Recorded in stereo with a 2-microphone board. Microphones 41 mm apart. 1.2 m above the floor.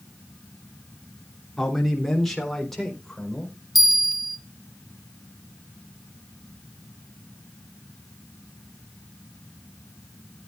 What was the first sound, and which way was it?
A man speaking, 5° left (ahead or behind).